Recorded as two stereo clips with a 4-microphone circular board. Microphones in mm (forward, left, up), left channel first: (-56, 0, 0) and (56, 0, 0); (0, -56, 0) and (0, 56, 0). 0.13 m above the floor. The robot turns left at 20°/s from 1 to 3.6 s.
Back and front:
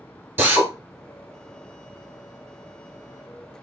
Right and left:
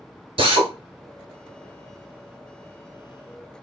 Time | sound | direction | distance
0.4 | a drill | 70° left | 0.9 m